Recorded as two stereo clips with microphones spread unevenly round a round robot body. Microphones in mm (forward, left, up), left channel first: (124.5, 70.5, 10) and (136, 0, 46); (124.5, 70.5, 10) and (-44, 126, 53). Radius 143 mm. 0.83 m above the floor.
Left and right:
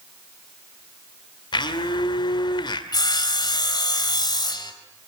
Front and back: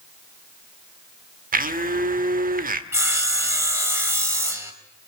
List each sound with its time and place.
1.5 s a blender: 120° left, 1.8 m
2.9 s sawing: 85° left, 4 m